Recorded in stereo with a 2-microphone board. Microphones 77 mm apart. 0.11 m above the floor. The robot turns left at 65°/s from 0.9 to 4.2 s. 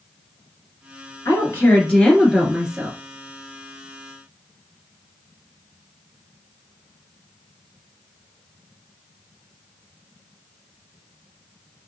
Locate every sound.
1.2 s a woman speaking: 75° left, 1.3 m; by 3.0 s 40° right, 1.3 m